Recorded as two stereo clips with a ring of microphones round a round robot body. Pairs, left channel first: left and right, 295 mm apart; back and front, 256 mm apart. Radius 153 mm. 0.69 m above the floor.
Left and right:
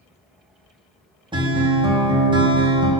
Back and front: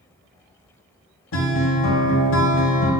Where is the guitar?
165° right, 1.2 m.